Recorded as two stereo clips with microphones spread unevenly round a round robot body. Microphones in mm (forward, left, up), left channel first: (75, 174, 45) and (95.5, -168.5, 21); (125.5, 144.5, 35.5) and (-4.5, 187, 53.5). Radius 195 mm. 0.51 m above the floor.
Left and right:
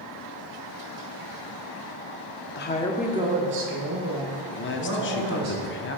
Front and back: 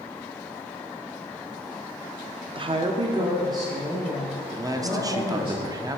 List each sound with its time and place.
2.5 s a woman speaking: 125° left, 0.8 m; by 5.5 s 115° right, 2.5 m
4.5 s a man speaking: 110° left, 0.9 m